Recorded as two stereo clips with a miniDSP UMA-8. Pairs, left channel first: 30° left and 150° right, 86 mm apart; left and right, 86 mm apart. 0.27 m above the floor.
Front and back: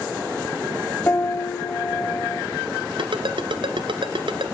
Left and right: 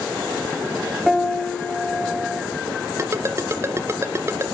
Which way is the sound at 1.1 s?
5° right.